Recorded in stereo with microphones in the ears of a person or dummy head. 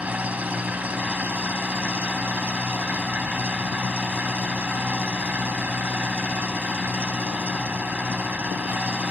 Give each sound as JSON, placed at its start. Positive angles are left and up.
{"t": 0.0, "sound": "an engine running", "side_deg": -5}